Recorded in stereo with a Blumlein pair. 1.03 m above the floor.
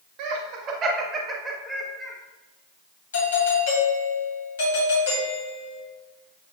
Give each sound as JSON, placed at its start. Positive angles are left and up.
{"t": 0.2, "sound": "laughter", "azimuth_deg": -40, "distance_m": 1.5}
{"t": 3.1, "sound": "a doorbell", "azimuth_deg": 65, "distance_m": 3.0}